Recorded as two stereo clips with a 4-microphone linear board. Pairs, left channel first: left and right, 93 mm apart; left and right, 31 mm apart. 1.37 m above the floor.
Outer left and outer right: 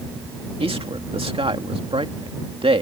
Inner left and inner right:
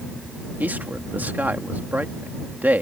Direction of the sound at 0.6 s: 80° right.